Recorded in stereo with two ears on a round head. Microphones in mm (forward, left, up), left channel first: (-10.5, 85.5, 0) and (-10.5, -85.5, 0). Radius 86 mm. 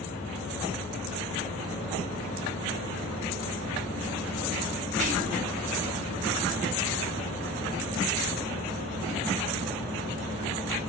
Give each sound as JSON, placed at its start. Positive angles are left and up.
{"t": 5.0, "sound": "whispering", "side_deg": -40, "distance_m": 0.8}